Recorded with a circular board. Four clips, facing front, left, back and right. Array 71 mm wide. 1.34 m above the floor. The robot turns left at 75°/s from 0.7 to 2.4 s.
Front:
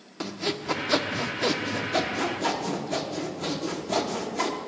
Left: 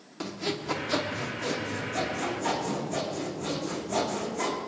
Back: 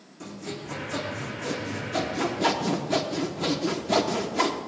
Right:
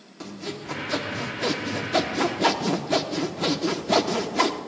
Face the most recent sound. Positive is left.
turn(degrees=-110)